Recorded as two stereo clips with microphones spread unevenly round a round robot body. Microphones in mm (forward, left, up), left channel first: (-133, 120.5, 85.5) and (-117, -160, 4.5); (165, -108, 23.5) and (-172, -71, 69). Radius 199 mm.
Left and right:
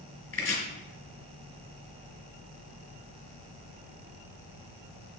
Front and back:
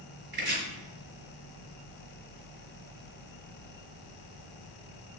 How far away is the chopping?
About 4.5 m.